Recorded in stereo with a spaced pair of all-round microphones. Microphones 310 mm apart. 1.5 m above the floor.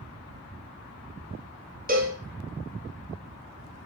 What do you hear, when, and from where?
1.9 s a cowbell: 30° right (ahead or behind), 0.7 m